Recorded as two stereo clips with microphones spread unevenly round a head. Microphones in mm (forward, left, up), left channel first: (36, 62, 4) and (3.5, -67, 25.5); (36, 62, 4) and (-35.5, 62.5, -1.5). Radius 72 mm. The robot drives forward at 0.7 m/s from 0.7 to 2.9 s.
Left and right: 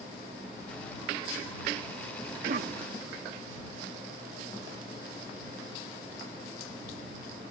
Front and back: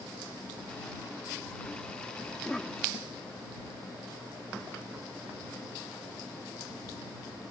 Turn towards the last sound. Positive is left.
turn(degrees=-95)